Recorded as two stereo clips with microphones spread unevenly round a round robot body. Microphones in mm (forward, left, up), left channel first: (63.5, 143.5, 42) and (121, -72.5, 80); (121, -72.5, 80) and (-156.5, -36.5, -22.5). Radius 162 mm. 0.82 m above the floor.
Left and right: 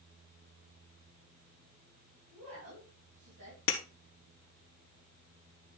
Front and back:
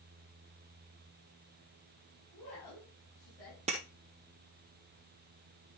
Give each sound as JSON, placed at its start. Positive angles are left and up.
{"t": 2.3, "sound": "a woman speaking", "azimuth_deg": -55, "distance_m": 5.5}
{"t": 3.7, "sound": "breaking glass", "azimuth_deg": 90, "distance_m": 1.2}